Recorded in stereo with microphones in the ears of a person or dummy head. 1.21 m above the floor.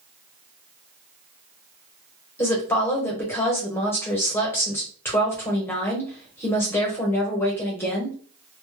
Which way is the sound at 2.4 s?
10° left (ahead or behind).